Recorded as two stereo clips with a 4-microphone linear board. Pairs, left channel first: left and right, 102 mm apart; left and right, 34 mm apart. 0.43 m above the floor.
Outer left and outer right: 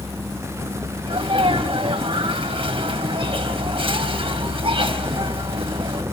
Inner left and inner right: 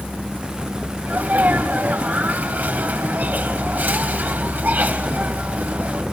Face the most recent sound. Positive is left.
turn(degrees=-65)  # may be behind; listen again after turning